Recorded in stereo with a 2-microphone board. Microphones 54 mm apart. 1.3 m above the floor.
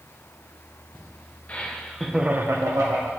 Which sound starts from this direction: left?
Laughter, at 1.5 s.